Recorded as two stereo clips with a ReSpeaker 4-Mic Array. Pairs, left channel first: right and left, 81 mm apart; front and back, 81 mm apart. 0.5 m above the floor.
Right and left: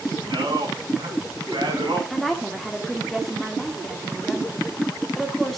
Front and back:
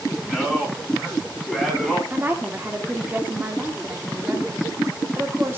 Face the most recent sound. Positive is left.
turn(degrees=-175)